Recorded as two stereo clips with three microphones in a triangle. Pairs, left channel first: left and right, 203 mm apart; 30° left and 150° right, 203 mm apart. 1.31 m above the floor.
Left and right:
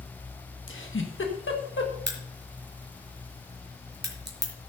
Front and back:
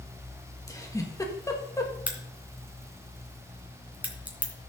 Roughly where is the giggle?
Left.